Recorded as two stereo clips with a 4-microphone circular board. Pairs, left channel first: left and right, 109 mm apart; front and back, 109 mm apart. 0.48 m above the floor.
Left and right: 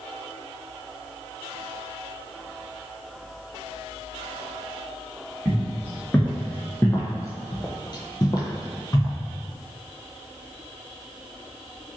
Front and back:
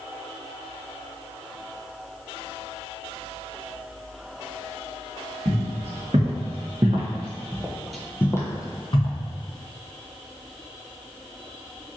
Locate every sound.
5.5 s footsteps: 170° left, 1.5 m; by 9.2 s 30° left, 0.9 m